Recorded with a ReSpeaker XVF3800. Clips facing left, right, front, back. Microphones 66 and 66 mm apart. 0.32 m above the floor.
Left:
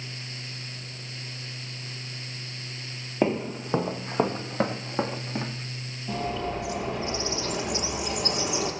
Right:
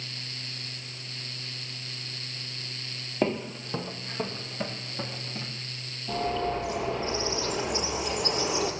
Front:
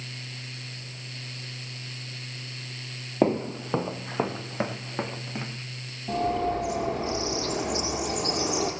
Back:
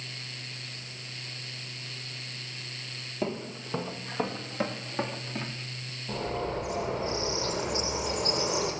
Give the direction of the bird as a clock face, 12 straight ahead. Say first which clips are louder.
Right 2 dB, front 6 dB; 12 o'clock.